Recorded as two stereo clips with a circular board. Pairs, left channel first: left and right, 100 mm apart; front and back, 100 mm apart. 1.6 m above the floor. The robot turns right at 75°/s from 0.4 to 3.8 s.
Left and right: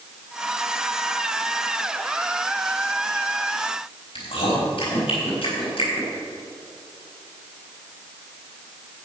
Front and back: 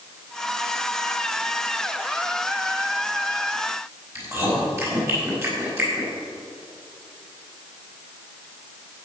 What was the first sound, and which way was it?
Chewing, 120° left.